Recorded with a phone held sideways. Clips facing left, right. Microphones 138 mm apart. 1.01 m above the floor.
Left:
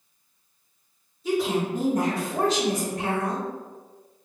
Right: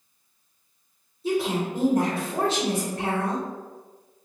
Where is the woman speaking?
30° right (ahead or behind), 1.4 m.